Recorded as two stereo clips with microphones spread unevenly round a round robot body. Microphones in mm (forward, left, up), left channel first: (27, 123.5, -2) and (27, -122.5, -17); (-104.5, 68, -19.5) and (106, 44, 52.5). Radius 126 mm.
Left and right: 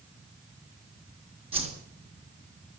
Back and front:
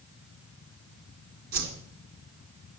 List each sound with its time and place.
1.5 s a whoosh: 20° right, 3.5 m